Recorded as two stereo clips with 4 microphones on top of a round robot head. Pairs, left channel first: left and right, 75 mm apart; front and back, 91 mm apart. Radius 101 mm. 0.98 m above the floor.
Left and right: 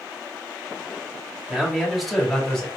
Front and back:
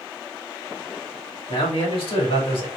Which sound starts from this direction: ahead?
A man speaking, at 1.5 s.